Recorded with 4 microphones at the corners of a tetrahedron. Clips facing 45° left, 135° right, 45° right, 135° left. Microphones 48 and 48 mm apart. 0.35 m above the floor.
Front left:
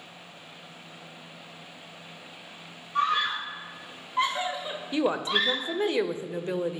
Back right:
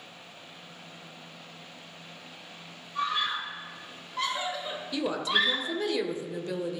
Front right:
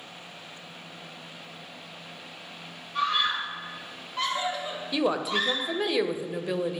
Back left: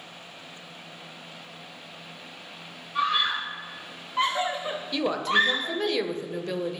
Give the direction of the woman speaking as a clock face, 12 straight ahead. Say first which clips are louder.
Front left 2 dB, back left 2 dB; 11 o'clock.